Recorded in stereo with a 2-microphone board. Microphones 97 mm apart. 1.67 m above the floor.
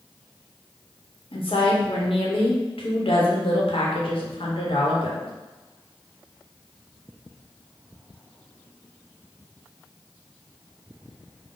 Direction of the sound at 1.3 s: 70° left (ahead or behind).